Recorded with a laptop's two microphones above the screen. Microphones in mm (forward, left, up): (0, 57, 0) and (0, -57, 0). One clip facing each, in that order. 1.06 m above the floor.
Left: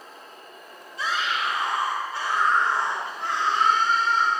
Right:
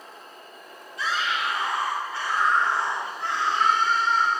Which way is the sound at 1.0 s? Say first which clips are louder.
Even; 35° left (ahead or behind).